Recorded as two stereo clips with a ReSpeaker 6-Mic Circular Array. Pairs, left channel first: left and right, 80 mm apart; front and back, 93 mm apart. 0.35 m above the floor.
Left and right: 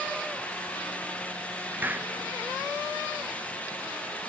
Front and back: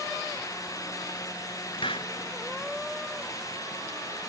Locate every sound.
1.8 s a hiss: 25° right